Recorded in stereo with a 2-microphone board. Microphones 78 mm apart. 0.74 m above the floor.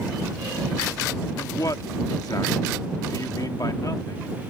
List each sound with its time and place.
1.4 s a man speaking: 55° left (ahead or behind)